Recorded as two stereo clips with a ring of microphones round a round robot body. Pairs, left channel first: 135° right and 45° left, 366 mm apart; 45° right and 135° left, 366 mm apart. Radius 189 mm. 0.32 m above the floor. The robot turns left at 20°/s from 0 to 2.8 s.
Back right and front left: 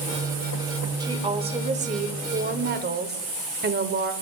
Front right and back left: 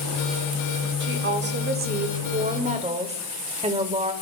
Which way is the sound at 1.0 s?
115° left.